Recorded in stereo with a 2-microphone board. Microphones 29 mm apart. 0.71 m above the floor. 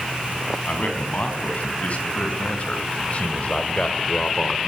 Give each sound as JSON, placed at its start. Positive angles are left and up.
{"t": 0.7, "sound": "a man speaking", "side_deg": 50, "distance_m": 6.0}